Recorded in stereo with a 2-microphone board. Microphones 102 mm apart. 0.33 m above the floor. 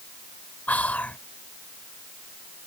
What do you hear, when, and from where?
0.7 s whispering: 15° left (ahead or behind)